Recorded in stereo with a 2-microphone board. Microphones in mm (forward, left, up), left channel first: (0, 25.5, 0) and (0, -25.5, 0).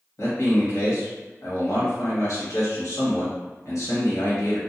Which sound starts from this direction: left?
A man speaking, at 0.2 s.